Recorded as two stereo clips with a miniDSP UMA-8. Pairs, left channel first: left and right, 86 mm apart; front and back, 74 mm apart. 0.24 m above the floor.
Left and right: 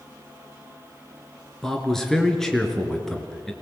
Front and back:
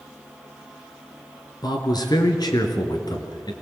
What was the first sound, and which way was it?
A man speaking, 5° left.